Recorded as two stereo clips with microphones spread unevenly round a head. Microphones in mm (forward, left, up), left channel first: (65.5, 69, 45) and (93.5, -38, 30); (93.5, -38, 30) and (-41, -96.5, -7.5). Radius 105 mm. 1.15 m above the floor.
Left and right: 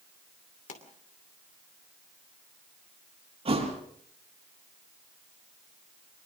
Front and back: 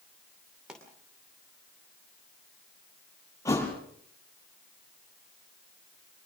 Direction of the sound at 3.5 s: 45° right.